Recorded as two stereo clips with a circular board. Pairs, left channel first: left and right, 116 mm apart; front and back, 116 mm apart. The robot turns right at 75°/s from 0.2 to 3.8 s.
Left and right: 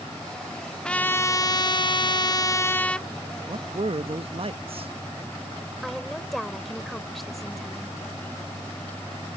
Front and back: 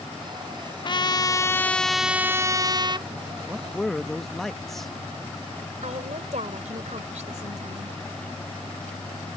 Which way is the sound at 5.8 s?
Straight behind.